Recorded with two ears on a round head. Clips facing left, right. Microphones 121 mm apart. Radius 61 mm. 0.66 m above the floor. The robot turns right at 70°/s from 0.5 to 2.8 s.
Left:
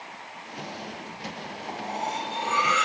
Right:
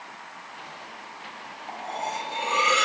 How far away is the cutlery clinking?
About 0.5 m.